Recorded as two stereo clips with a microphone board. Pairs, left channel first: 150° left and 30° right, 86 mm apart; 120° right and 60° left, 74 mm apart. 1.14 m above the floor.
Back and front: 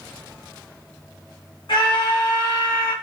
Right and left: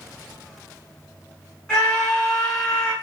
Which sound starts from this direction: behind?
A scream, at 1.7 s.